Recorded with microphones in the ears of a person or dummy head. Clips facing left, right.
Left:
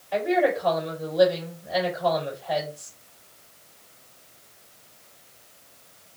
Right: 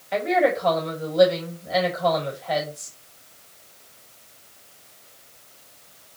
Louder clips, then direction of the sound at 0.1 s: Right 1 dB; 30° right (ahead or behind).